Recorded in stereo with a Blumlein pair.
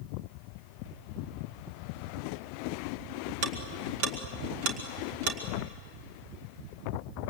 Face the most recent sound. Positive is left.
turn(degrees=-45)